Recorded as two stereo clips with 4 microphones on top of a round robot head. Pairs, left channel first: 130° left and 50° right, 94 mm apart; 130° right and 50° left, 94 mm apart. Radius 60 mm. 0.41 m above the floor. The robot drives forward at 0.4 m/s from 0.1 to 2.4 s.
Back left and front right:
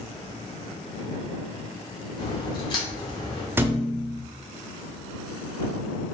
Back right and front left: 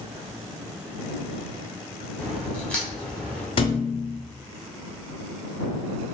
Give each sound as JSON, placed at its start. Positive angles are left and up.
{"t": 2.2, "sound": "a crack", "azimuth_deg": 150, "distance_m": 1.3}
{"t": 3.6, "sound": "a thud", "azimuth_deg": -120, "distance_m": 0.5}